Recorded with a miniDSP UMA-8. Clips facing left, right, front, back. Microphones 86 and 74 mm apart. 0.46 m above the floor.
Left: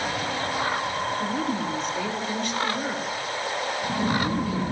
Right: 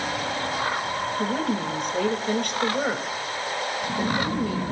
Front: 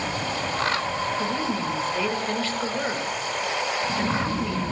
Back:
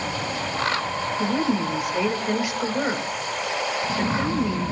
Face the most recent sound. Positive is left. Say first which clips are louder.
# right 1 dB, back 3 dB
turn(degrees=-110)